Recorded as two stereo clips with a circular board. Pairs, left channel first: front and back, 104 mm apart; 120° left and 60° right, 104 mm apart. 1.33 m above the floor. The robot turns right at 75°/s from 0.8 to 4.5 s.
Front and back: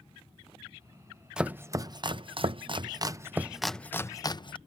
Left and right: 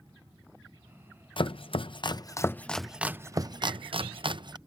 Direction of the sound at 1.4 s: 100° left.